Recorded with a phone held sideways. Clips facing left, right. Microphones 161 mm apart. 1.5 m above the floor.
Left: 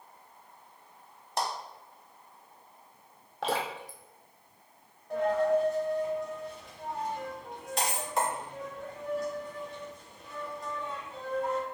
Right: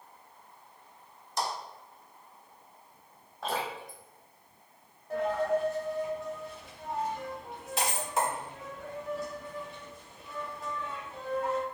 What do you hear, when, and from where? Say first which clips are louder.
1.4 s a clap: left 1 dB; 65° left (ahead or behind), 0.8 m
3.4 s dripping: left 2 dB; 80° left, 0.5 m
5.1 s a dropped coin: left 3 dB; centre (ahead or behind), 0.9 m